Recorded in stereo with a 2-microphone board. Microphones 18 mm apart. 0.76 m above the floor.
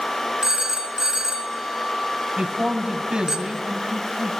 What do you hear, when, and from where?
0.4 s a phone ringing: 35° right (ahead or behind), 2.5 m
2.4 s a man speaking: 60° right (ahead or behind), 4.5 m